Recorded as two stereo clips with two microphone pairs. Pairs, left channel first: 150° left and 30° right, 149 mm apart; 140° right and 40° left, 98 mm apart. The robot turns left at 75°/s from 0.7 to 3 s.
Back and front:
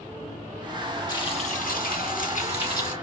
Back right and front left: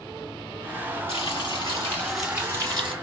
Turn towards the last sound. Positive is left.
turn(degrees=70)